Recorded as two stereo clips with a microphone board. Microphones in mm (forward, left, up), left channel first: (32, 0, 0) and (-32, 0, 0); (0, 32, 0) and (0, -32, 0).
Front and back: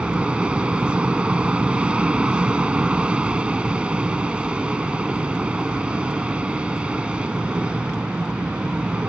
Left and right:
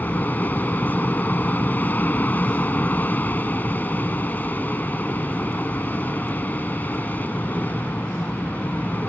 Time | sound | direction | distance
0.0 | an aircraft | 120° left | ?